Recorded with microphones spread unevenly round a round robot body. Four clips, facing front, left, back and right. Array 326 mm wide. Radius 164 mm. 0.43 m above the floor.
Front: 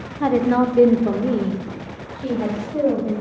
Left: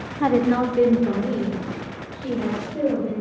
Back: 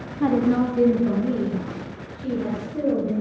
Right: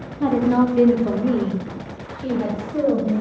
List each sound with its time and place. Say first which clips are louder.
0.2 s a woman speaking: right 2 dB, front 2 dB; 120° left, 0.7 m; by 3.2 s 20° right, 2.5 m